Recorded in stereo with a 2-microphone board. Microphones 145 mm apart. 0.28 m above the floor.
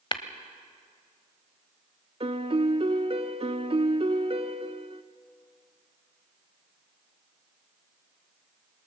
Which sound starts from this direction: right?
A piano, at 2.2 s.